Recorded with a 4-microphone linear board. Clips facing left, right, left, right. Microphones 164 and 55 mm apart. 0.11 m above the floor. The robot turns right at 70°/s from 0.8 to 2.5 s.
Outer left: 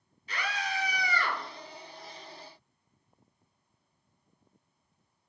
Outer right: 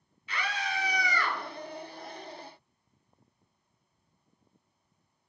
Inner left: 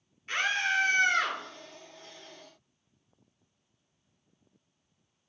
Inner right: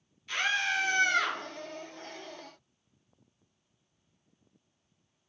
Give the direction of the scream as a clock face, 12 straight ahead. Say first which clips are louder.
Even, inner left 1 dB; 9 o'clock.